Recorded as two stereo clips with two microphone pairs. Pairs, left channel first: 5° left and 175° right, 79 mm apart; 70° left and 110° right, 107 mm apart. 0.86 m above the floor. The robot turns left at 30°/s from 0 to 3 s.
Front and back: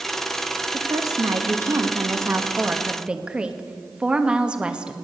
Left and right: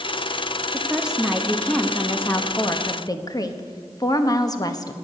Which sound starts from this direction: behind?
A woman speaking, at 0.7 s.